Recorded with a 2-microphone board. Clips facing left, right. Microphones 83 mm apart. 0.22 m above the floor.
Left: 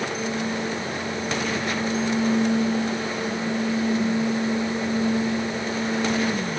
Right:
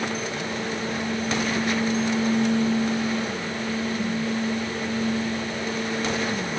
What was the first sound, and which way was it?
Only background noise.